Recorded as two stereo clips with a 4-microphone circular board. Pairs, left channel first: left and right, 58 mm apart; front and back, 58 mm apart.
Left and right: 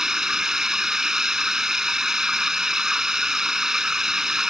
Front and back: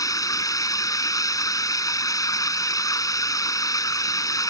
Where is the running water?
10° right.